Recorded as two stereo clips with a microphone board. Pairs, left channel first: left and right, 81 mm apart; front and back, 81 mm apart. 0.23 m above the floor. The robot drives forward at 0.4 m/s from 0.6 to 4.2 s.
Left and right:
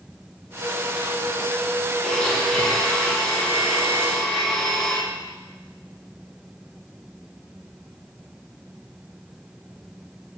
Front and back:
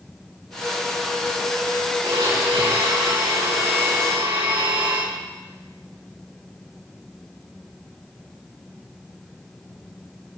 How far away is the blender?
About 5 m.